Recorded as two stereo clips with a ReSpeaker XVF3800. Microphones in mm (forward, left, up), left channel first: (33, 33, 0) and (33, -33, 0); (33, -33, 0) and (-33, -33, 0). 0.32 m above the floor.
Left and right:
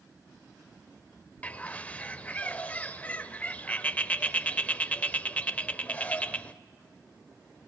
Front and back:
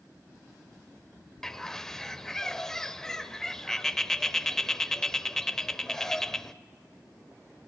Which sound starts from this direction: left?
A bird, at 1.4 s.